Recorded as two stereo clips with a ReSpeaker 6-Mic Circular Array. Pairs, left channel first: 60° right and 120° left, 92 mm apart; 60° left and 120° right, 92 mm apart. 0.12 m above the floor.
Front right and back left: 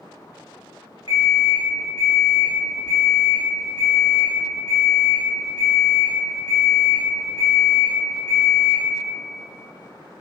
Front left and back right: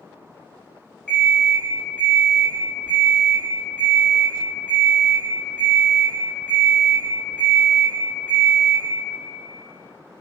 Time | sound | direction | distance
1.1 | an alarm clock | 125° left | 1.0 m